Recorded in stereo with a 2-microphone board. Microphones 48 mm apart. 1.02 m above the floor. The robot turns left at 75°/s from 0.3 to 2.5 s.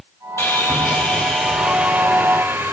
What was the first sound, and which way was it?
Sawing, 85° left.